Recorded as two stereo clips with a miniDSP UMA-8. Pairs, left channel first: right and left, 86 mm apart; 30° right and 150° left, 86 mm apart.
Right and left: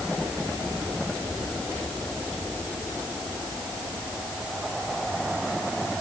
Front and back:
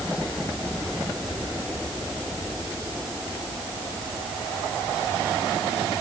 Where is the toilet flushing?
No toilet flushing in this recording.